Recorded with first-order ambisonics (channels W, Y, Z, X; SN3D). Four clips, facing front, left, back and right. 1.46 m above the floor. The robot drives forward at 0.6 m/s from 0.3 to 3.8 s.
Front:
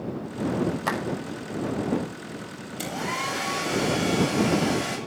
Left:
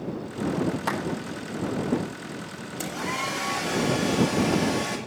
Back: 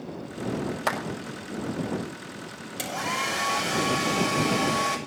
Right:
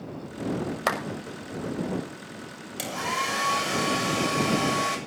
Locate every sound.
0.9 s a clap: 105° right, 6 m
2.8 s a hair dryer: 125° right, 6.5 m; by 5.0 s 130° right, 7 m